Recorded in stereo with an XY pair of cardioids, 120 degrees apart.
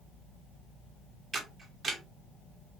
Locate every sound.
1.3 s a camera shutter: 35° right, 0.9 m